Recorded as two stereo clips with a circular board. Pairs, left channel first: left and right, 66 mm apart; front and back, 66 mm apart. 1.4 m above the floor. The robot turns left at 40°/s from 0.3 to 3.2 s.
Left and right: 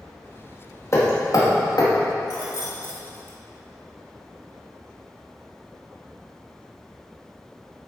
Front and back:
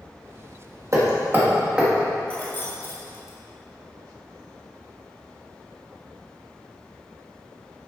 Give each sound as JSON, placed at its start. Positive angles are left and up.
{"t": 0.9, "sound": "hammering", "azimuth_deg": 135, "distance_m": 2.0}
{"t": 2.3, "sound": "keys jangling", "azimuth_deg": 70, "distance_m": 1.9}